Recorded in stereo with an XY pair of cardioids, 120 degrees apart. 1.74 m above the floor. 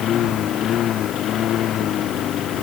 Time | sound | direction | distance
0.0 | a lawn mower | 60° left | ?